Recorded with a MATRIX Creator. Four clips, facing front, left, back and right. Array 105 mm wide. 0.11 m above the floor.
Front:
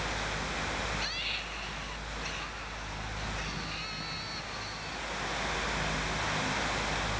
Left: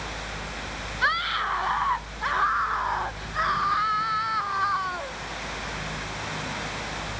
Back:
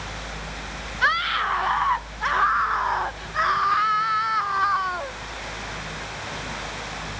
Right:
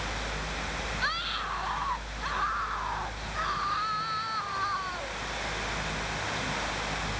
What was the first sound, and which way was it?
A scream, 155° left.